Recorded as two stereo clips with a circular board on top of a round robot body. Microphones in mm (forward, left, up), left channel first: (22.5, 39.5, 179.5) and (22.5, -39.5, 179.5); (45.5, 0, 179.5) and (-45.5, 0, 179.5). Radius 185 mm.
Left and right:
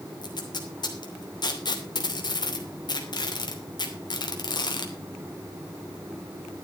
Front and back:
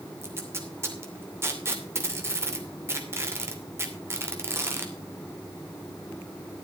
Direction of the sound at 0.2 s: 120° left.